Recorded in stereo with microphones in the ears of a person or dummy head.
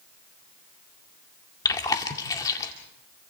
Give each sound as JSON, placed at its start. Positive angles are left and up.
{"t": 1.6, "sound": "chewing", "side_deg": 25, "distance_m": 2.0}